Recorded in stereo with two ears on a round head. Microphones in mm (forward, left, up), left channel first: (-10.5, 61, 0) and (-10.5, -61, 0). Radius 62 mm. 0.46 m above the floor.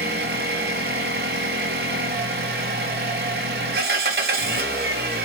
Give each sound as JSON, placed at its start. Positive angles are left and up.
{"t": 0.0, "sound": "an engine running", "side_deg": -75, "distance_m": 0.7}